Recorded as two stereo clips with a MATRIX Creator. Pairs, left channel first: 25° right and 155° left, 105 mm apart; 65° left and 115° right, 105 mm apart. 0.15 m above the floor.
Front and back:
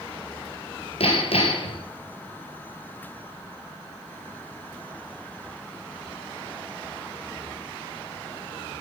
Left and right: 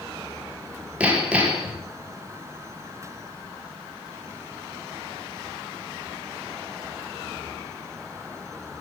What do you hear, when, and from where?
1.0 s hammering: 35° right, 2 m